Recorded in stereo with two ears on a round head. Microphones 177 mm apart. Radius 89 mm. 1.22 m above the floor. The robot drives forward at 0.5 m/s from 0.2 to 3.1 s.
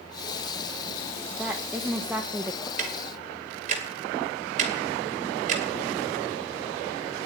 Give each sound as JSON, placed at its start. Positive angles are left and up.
{"t": 1.3, "sound": "a woman speaking", "side_deg": -5, "distance_m": 1.3}
{"t": 2.8, "sound": "ticking", "side_deg": -40, "distance_m": 2.5}